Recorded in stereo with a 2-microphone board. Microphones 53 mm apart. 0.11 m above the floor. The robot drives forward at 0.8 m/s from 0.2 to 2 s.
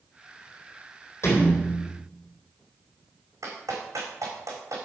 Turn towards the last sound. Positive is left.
turn(degrees=-80)